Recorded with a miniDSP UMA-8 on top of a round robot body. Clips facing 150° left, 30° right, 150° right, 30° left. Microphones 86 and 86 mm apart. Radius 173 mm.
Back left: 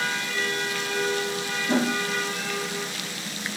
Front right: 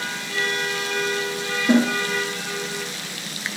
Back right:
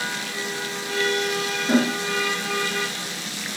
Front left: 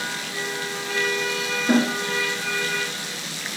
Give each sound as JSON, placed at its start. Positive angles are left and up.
{"t": 1.7, "sound": "a snare drum", "azimuth_deg": -40, "distance_m": 4.0}